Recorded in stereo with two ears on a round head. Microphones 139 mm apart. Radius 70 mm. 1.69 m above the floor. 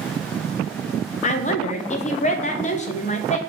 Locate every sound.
1.2 s a woman speaking: 45° left (ahead or behind), 0.9 m